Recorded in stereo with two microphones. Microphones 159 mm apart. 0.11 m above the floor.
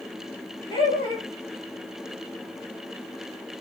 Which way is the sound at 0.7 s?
30° left (ahead or behind).